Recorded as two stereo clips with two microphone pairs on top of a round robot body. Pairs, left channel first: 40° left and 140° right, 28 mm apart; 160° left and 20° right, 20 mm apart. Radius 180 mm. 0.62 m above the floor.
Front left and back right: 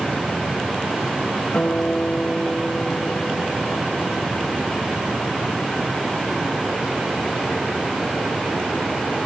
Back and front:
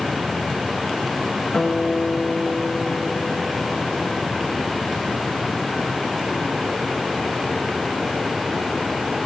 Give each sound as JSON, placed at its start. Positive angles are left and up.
{"t": 1.5, "sound": "a guitar", "azimuth_deg": 90, "distance_m": 10.0}